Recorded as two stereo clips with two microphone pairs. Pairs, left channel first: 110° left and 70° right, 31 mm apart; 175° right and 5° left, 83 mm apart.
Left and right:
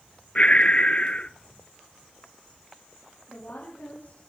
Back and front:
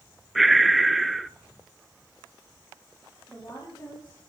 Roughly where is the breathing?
Left.